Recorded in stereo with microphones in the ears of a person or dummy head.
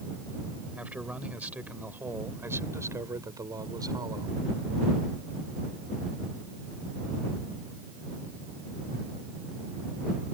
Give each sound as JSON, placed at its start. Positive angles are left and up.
{"t": 0.8, "sound": "a man speaking", "side_deg": -5}